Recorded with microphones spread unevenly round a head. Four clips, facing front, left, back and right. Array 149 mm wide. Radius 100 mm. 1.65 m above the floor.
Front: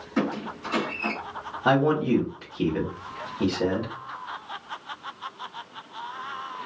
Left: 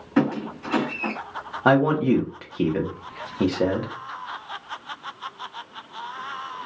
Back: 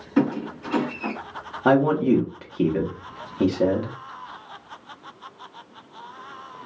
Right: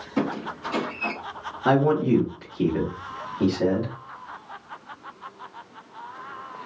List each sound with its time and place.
0.2 s a squeak: 115° left, 1.9 m
1.6 s a man speaking: 160° left, 0.9 m